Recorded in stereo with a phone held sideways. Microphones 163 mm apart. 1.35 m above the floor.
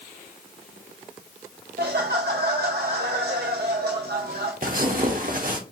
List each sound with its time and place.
1.8 s laughter: 75° right (ahead or behind), 0.6 m
4.6 s tearing paper: 60° right (ahead or behind), 1.0 m